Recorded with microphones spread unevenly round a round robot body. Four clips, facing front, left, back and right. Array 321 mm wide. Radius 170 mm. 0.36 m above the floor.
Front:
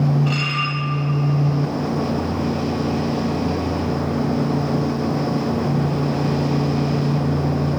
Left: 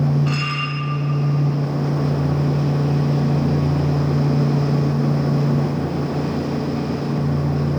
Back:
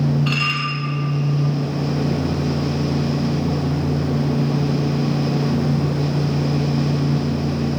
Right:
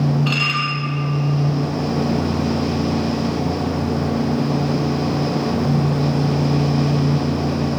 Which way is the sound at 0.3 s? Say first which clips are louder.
Right 2 dB, even; 170° right.